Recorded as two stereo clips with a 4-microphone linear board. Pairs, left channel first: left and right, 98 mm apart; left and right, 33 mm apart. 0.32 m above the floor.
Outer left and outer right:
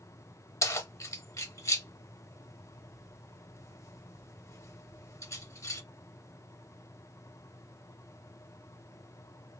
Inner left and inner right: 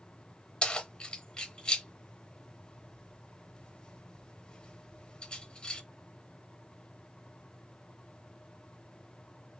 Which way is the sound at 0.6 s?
30° left (ahead or behind).